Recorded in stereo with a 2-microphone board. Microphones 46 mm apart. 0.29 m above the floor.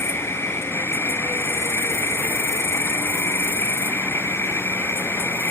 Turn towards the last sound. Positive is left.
turn(degrees=65)  # may be behind; listen again after turning